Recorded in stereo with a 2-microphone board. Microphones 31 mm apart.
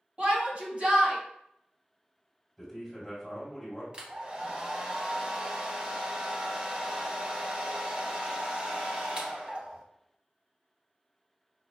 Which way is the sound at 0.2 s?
45° right (ahead or behind).